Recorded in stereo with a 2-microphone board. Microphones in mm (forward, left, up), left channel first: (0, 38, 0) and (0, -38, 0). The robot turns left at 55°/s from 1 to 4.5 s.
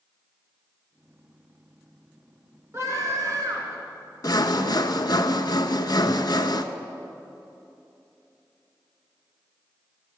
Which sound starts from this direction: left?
Sawing, at 4.2 s.